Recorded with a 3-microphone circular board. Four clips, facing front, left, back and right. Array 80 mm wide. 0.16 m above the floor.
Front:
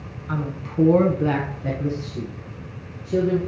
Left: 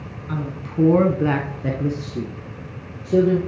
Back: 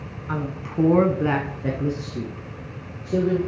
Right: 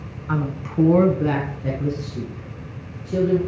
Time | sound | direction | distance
0.3 | a woman speaking | 85° right | 1.2 m